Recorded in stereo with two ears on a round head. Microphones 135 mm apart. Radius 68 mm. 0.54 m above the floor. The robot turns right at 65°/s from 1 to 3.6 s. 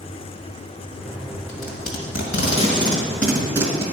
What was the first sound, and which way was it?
Tape being pulled, 60° left (ahead or behind).